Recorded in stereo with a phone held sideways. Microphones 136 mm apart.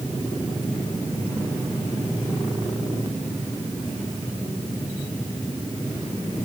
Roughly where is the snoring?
No snoring in this recording.